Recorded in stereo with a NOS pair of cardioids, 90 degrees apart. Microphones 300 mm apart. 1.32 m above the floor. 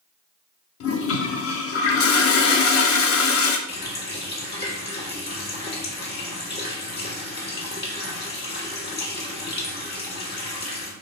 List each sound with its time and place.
0.8 s a toilet flushing: 50° left, 0.6 m
3.7 s a running tap: 35° left, 1.4 m